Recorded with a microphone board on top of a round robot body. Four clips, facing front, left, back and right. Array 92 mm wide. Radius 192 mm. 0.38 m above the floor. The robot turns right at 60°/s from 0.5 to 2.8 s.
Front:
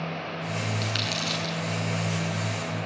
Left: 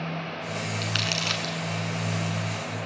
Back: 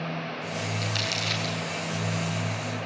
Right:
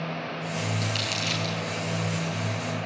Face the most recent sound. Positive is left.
turn(degrees=180)